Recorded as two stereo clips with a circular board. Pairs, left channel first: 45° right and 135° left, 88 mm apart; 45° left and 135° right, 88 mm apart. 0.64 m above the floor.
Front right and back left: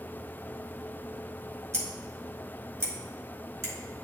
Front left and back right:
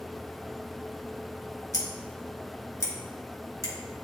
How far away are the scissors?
About 1.6 m.